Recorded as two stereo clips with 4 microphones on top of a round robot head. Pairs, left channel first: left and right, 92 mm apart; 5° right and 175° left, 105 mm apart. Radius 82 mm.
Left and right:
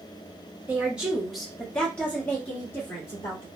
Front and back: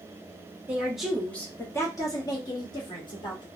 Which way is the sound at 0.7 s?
130° right.